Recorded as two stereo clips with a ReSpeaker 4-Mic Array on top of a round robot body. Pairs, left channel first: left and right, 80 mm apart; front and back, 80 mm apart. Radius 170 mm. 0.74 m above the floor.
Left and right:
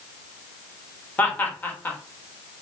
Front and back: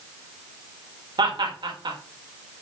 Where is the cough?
No cough in this recording.